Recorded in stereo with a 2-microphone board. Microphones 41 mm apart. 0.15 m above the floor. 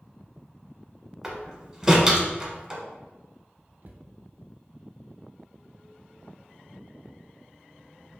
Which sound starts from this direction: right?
A cupboard door, at 3.8 s.